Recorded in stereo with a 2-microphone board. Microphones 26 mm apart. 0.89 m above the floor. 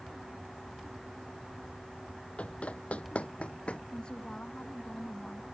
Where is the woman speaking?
30° left (ahead or behind).